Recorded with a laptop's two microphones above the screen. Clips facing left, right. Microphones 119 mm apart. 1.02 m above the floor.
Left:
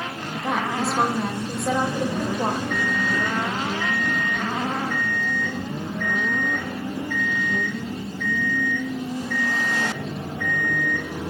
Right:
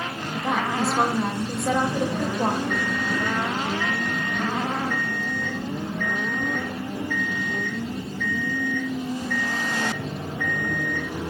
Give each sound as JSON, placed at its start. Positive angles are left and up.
{"t": 0.3, "sound": "a woman speaking", "side_deg": 0, "distance_m": 0.7}
{"t": 2.7, "sound": "an alarm clock", "side_deg": 10, "distance_m": 1.5}